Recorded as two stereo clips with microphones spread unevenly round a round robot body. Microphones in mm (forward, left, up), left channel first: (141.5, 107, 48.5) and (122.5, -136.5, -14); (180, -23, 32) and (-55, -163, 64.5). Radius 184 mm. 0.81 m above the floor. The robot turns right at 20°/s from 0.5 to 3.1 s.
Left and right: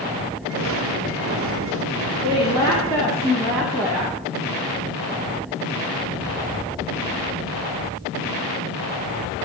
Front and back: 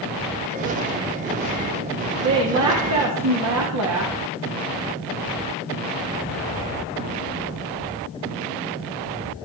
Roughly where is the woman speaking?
Behind.